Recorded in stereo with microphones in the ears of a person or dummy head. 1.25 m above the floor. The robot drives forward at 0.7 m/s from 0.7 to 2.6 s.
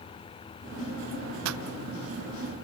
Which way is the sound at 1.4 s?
85° right.